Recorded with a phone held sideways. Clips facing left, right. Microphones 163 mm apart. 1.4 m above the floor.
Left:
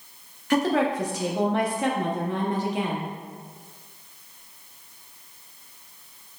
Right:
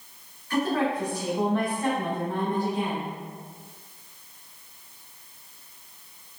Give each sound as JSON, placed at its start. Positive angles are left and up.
{"t": 0.5, "sound": "a woman speaking", "side_deg": 85, "distance_m": 0.8}